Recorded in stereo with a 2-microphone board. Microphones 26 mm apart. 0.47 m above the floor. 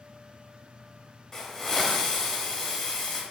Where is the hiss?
20° left (ahead or behind), 1.2 m.